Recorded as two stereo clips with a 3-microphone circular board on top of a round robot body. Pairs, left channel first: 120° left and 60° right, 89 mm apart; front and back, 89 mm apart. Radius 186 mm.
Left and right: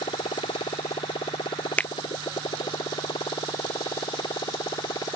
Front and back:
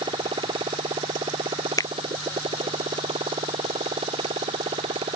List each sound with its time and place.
0.0 s a motorcycle: 150° left; by 5.2 s 170° left
1.8 s a finger snap: 45° left